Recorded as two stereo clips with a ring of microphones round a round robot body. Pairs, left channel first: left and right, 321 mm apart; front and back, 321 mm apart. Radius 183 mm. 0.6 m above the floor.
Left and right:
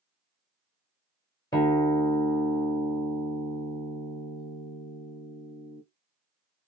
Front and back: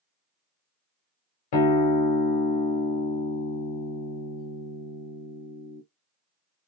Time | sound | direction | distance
1.5 | a guitar | 10° left | 0.9 m